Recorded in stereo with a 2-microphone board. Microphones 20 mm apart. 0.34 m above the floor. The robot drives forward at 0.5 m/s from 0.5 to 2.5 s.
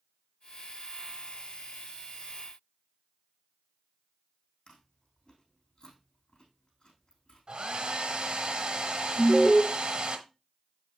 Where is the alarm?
Centre (ahead or behind), 1.0 m.